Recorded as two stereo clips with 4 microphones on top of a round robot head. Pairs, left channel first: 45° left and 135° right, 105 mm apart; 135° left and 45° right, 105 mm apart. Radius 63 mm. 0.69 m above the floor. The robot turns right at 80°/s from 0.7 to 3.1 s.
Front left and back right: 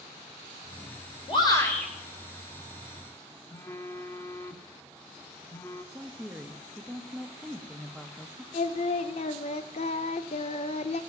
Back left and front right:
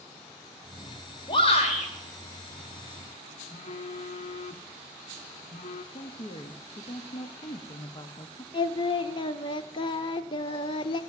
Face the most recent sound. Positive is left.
turn(degrees=85)